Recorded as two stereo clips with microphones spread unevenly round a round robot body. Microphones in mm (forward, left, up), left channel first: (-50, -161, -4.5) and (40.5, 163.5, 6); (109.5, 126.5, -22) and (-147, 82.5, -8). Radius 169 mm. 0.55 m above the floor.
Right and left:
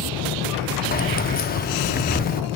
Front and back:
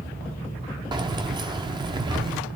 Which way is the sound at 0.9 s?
110° right.